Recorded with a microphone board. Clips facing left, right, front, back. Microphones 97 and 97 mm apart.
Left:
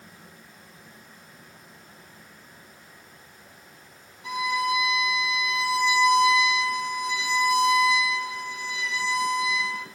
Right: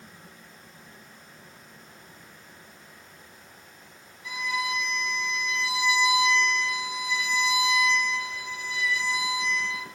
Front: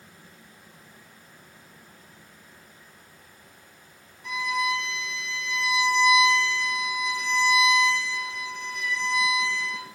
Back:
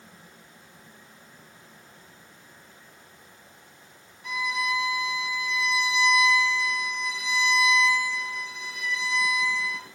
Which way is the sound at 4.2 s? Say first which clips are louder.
Left 5 dB, front 2 dB; 90° left.